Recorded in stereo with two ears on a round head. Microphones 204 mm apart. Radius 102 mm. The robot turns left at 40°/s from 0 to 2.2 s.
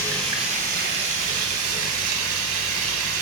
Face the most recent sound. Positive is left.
turn(degrees=-100)